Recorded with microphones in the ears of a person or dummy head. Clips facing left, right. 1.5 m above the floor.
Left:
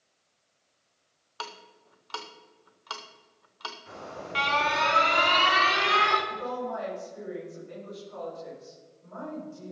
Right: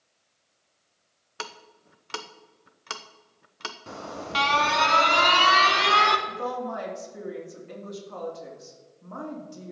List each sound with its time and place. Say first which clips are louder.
1.4 s ticking: right 1 dB; 40° right (ahead or behind), 0.7 m
3.9 s an alarm: right 4 dB; 70° right (ahead or behind), 1.3 m
6.3 s a woman speaking: right 2 dB; 85° right, 3.5 m